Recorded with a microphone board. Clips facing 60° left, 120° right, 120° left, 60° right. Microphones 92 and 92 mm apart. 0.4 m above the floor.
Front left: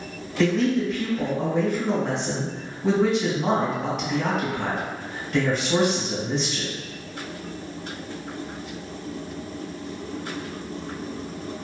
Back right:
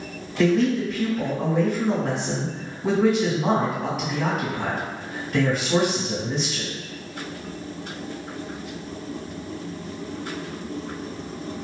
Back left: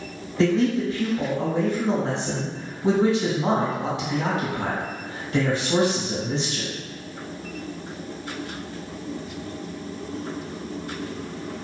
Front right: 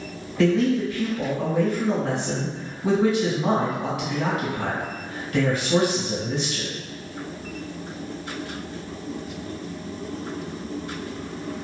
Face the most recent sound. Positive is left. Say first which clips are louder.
# back right 1 dB, front right 1 dB
turn(degrees=155)